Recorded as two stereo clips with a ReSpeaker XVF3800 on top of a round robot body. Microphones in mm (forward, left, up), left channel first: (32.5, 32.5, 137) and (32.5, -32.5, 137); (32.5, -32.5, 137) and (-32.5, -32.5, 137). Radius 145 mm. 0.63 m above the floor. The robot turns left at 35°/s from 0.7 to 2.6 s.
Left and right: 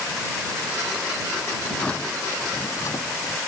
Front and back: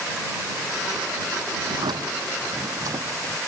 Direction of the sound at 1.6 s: 175° left.